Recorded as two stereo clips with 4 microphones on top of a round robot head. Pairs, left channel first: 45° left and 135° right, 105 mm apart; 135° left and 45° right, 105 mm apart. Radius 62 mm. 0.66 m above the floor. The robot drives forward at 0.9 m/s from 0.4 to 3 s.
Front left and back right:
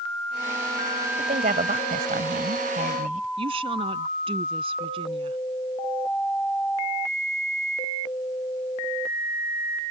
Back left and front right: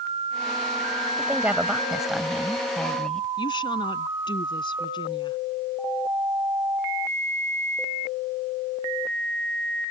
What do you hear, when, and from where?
1.2 s a woman speaking: 115° right; by 3.3 s 140° right
3.4 s a woman speaking: 175° right